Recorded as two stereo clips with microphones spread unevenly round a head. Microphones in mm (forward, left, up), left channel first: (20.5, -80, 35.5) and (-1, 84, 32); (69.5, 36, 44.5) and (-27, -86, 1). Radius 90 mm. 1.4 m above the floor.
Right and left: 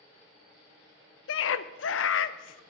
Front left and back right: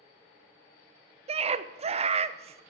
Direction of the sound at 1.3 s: 70° right.